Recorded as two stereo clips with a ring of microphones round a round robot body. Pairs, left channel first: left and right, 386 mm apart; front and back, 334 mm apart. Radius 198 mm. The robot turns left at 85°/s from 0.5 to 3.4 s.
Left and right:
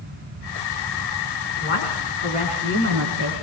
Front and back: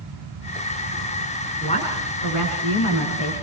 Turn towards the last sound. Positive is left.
turn(degrees=-70)